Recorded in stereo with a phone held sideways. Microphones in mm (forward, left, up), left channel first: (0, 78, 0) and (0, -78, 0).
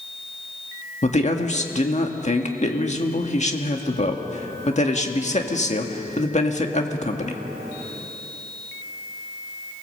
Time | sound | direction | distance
1.0 | a man speaking | 50° left (ahead or behind) | 1.9 m